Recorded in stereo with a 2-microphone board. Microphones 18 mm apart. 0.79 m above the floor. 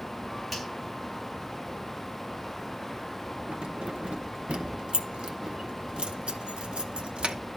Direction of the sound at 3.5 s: 75° right (ahead or behind).